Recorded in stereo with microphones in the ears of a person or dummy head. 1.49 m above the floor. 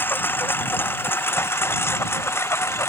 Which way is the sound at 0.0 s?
10° left (ahead or behind).